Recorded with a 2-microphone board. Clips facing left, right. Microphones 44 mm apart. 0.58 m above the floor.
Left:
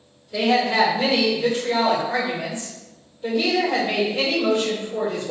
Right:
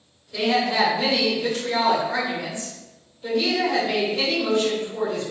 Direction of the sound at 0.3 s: 30° left (ahead or behind).